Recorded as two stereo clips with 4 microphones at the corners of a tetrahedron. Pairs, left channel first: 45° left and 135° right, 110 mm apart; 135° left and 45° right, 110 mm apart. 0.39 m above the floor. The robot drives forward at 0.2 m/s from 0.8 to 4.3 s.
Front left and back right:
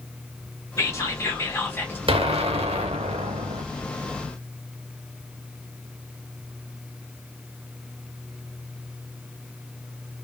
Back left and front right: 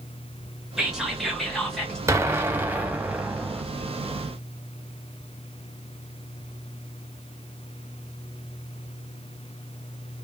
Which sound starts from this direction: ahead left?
Whispering, at 0.8 s.